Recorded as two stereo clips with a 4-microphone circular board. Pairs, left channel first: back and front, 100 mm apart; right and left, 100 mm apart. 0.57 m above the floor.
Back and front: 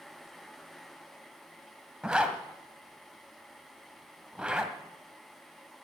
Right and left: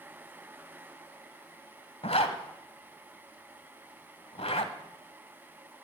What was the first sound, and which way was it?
A zipper, 80° right.